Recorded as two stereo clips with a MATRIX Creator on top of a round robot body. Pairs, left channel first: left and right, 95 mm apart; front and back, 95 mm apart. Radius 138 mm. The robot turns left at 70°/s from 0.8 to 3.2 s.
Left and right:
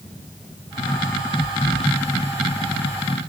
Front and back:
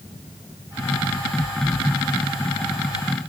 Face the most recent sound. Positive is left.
No sound to turn to.